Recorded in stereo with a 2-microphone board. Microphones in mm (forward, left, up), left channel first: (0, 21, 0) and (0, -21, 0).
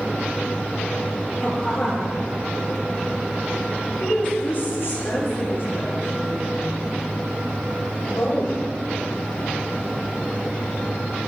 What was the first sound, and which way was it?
A woman speaking, 10° left (ahead or behind).